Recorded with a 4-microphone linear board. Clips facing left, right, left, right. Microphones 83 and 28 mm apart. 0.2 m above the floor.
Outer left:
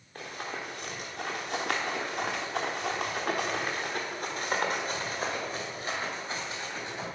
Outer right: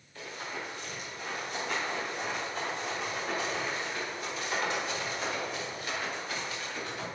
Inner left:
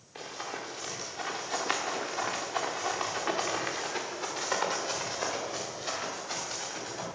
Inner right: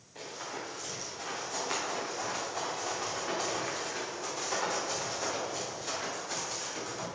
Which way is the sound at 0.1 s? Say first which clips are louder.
Outer left 2 dB, inner left 2 dB; 55° left (ahead or behind).